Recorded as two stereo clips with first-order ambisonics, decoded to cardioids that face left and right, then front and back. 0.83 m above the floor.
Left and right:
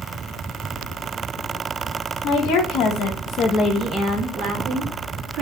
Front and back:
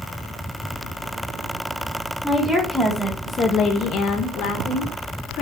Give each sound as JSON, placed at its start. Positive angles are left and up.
{"t": 2.2, "sound": "a woman speaking", "azimuth_deg": 105, "distance_m": 1.1}